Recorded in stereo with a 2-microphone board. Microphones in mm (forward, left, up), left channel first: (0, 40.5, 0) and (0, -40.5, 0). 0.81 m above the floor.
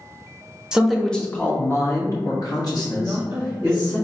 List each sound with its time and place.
0.7 s a man speaking: 10° right (ahead or behind), 0.7 m; by 4.0 s 60° left (ahead or behind), 2 m
3.0 s a woman speaking: 30° right (ahead or behind), 1.0 m